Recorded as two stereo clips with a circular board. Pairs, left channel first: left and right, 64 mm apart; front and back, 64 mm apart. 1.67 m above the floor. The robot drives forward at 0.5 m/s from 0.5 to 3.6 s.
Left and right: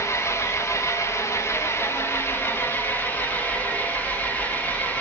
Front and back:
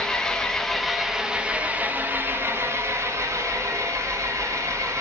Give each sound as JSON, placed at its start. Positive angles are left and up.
{"t": 0.0, "sound": "an engine running", "azimuth_deg": 80, "distance_m": 1.1}